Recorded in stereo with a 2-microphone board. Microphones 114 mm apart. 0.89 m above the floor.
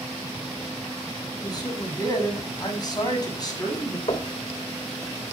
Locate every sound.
1.4 s a man speaking: 35° left (ahead or behind), 6.5 m
4.1 s knocking: 55° left (ahead or behind), 2.5 m